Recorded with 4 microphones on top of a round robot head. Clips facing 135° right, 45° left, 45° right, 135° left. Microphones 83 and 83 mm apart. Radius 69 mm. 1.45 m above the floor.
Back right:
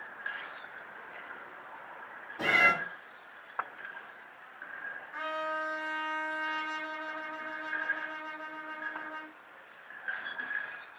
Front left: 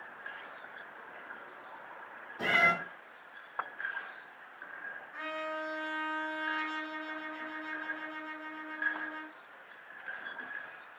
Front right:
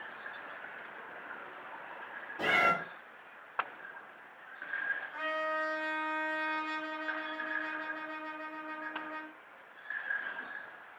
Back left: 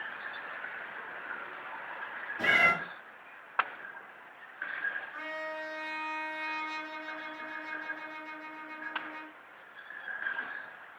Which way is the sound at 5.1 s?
75° right.